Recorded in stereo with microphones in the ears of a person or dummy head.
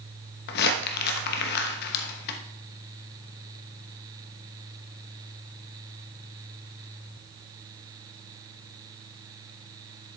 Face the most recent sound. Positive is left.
turn(degrees=55)  # may be behind; listen again after turning